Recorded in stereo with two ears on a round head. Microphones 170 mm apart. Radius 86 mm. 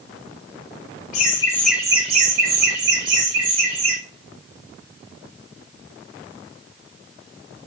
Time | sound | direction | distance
1.1 | laughter | 40° left (ahead or behind) | 0.7 m